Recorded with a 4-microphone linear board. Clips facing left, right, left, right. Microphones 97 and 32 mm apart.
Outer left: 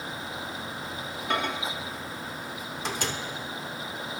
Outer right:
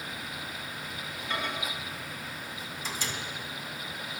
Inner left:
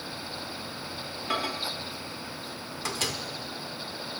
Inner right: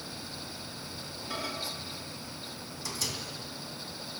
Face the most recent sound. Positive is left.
turn(degrees=60)  # may be behind; listen again after turning